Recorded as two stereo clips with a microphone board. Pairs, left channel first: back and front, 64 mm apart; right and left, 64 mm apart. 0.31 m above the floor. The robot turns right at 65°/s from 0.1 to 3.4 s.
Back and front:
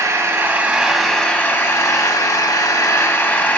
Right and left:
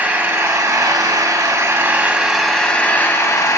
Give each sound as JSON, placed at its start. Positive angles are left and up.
{"t": 0.0, "sound": "an engine running", "azimuth_deg": 25, "distance_m": 0.8}